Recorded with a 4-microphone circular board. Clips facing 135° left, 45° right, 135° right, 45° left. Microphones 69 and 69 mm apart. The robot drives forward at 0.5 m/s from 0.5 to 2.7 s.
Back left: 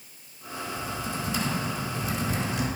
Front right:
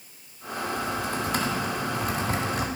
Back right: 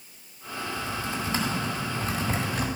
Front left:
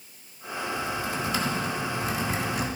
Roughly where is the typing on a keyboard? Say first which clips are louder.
Front right 4 dB, front left 2 dB; ahead right.